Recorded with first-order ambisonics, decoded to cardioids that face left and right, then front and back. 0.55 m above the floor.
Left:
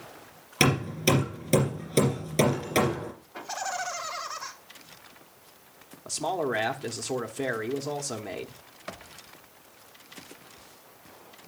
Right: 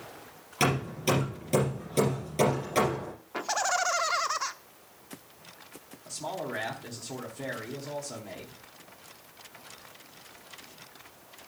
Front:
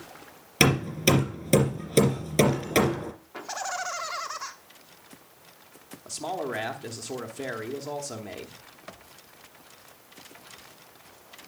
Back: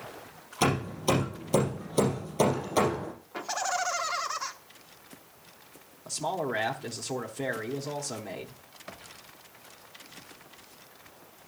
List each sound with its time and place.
0.6 s hammering: 20° left, 3.5 m
3.3 s laughter: 100° right, 0.8 m
6.0 s a man speaking: 90° left, 0.9 m